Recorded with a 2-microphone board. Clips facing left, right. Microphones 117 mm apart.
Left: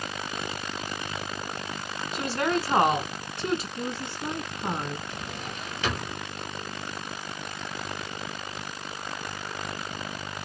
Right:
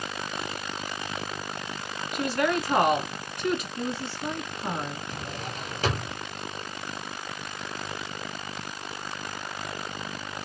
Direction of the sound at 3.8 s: 15° left (ahead or behind).